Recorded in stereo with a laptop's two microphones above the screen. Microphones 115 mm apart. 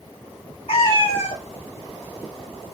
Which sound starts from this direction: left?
A cat meowing, at 0.7 s.